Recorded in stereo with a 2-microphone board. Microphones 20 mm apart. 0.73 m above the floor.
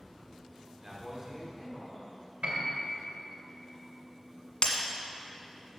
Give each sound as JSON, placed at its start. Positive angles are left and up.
{"t": 0.8, "sound": "a man speaking", "side_deg": -35, "distance_m": 2.0}
{"t": 2.4, "sound": "a piano", "side_deg": -60, "distance_m": 2.5}
{"t": 4.6, "sound": "breaking glass", "side_deg": 60, "distance_m": 1.6}